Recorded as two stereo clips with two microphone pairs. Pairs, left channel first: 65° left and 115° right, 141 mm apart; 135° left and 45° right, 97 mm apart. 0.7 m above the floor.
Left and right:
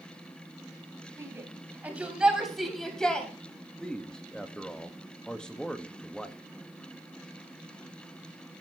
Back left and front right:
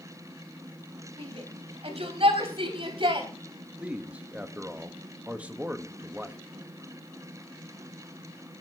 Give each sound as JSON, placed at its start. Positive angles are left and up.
{"t": 1.2, "sound": "a shout", "azimuth_deg": -45, "distance_m": 3.5}
{"t": 3.8, "sound": "a man speaking", "azimuth_deg": -5, "distance_m": 1.1}